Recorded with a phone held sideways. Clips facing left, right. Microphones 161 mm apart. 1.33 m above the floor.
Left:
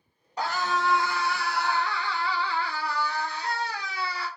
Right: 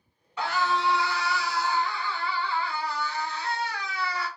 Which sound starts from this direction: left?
A scream, at 0.4 s.